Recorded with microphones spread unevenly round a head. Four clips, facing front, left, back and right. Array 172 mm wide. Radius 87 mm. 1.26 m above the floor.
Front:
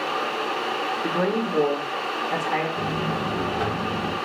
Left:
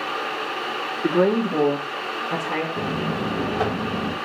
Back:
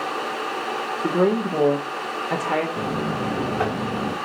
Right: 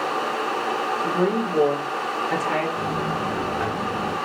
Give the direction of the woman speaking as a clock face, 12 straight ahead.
8 o'clock.